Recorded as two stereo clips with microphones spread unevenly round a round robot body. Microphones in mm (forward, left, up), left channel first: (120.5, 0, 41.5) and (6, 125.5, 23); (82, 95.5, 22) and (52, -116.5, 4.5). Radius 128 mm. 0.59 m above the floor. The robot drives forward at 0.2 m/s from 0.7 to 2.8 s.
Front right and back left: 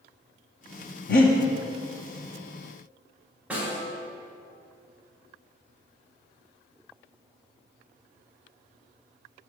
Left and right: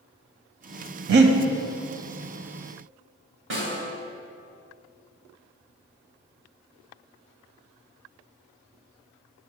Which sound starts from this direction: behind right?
A snare drum, at 3.5 s.